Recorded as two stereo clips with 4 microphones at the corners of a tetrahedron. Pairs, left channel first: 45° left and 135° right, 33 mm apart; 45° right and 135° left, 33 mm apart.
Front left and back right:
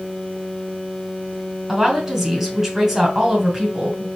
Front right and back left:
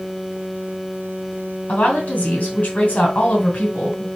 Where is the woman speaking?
55° right, 2 m.